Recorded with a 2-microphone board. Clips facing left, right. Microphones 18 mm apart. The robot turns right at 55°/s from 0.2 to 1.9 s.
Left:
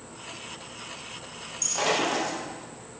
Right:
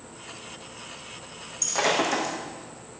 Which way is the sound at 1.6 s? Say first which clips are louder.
Right 2 dB; 10° right (ahead or behind).